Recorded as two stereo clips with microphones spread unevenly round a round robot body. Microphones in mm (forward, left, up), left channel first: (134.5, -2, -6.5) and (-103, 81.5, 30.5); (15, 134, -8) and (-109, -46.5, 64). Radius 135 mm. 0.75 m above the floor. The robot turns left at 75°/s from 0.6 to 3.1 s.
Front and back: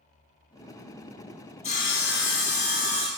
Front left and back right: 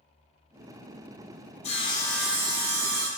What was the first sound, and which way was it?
Sawing, 30° left.